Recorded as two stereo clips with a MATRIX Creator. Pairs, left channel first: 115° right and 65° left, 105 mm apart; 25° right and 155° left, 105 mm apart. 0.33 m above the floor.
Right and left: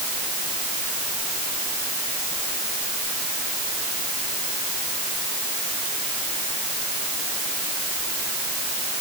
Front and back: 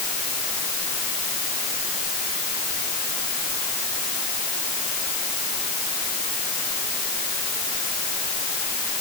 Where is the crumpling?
I don't hear crumpling.